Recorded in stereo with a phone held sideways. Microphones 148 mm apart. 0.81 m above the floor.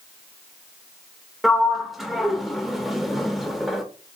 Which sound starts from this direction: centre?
A sliding door, at 1.4 s.